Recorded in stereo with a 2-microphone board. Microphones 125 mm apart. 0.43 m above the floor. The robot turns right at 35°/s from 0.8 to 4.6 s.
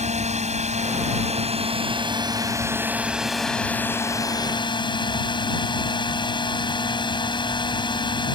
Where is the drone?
90° right; by 8.4 s 45° left.